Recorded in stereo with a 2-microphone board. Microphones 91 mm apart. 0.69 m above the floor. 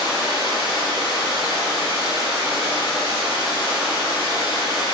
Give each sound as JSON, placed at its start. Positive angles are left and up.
{"t": 0.0, "sound": "running water", "side_deg": 60, "distance_m": 1.1}